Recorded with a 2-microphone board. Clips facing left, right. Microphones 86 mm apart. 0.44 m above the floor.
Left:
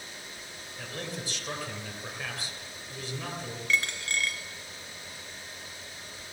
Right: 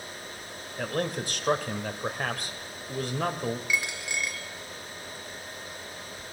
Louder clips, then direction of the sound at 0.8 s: Right 9 dB; 55° right (ahead or behind).